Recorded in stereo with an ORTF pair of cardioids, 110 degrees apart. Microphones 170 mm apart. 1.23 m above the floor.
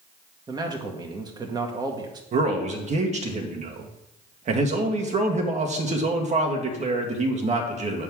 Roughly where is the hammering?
No hammering in this recording.